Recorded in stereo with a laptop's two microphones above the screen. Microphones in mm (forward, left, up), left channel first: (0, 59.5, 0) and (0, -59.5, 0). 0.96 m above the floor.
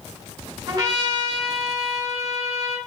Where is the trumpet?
35° right (ahead or behind), 1.8 m.